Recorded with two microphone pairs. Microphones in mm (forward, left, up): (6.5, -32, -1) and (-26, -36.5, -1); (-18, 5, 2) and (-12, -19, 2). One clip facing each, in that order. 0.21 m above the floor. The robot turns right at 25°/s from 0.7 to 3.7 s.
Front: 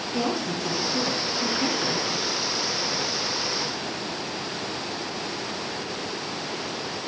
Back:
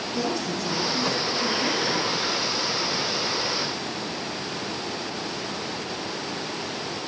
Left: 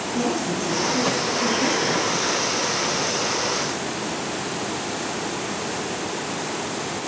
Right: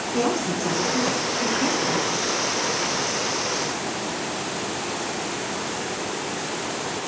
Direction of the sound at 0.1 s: 55° right.